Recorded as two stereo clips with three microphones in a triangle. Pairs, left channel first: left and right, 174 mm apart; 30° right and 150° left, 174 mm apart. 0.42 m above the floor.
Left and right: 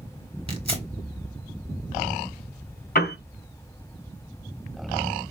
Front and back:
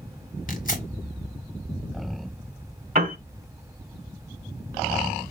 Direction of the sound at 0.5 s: 45° right.